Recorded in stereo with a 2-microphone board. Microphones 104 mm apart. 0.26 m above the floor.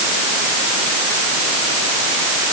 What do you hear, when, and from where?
Only background noise.